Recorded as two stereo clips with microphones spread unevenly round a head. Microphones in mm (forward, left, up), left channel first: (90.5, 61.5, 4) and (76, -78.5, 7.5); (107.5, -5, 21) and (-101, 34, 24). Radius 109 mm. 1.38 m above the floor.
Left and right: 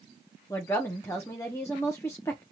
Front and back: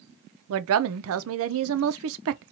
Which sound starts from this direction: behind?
A woman speaking, at 0.5 s.